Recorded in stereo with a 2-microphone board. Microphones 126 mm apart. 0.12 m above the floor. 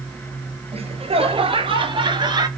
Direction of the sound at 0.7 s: 60° right (ahead or behind).